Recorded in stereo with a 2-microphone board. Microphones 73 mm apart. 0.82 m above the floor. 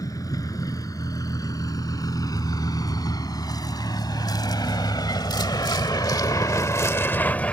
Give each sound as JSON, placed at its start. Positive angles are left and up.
{"t": 0.0, "sound": "a vehicle", "side_deg": 55}